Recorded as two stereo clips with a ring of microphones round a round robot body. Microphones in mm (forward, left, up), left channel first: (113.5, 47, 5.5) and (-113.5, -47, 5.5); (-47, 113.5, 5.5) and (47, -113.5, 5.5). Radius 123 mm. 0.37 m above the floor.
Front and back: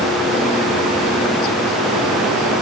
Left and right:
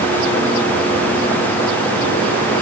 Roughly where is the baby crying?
No baby crying in this recording.